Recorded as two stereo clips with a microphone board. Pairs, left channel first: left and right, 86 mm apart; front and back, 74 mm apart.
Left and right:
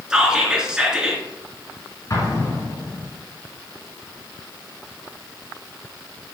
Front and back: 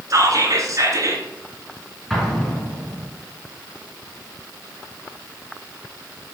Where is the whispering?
170° right, 2 m.